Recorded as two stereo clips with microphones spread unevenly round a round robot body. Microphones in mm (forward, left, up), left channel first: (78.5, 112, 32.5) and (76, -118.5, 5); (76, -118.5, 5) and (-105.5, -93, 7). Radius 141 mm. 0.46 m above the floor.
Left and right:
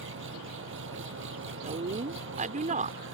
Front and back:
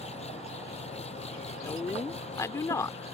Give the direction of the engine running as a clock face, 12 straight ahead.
2 o'clock.